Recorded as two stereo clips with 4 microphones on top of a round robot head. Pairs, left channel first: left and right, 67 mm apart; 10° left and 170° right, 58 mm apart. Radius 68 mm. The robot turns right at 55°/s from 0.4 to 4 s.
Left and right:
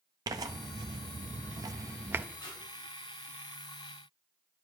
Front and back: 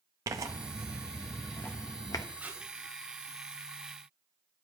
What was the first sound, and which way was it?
Tearing paper, 130° right.